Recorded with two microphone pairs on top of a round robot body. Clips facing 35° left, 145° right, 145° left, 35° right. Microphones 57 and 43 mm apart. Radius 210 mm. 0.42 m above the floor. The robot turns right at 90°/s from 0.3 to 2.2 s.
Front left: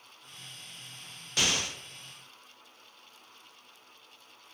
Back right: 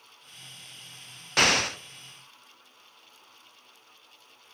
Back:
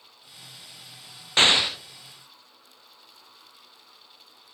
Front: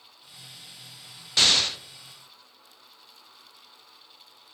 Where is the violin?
No violin in this recording.